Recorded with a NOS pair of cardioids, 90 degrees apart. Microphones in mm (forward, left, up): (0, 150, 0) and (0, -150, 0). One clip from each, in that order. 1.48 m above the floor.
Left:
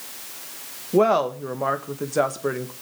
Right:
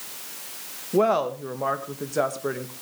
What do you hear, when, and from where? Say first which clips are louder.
0.9 s a woman speaking: left 3 dB; 20° left, 1.8 m